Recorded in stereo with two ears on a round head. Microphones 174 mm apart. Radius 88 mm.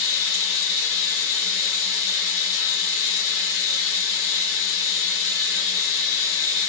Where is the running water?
60° left (ahead or behind), 1.1 m.